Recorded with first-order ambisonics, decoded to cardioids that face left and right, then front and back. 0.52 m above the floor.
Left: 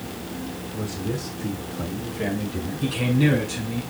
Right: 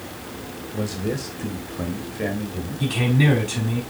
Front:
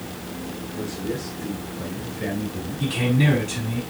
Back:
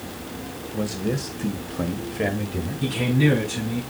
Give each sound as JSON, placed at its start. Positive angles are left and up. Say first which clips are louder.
{"t": 0.7, "sound": "a man speaking", "louder": "right 4 dB, back 3 dB", "azimuth_deg": -125, "distance_m": 2.0}
{"t": 2.8, "sound": "a man speaking", "louder": "right 1 dB, even", "azimuth_deg": -75, "distance_m": 4.0}